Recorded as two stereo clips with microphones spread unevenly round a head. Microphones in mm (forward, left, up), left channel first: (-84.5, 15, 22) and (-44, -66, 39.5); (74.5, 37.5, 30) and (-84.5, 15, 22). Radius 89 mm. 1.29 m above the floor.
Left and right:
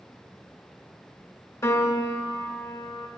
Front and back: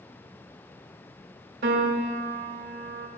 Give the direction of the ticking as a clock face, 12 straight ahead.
No ticking in this recording.